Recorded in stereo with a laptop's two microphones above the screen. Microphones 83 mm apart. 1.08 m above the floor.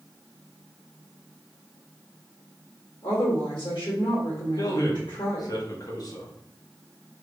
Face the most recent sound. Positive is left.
turn(degrees=50)  # may be behind; listen again after turning